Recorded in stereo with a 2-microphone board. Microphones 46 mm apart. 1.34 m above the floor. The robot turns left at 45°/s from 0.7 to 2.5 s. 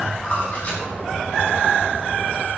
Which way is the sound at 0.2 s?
30° left (ahead or behind).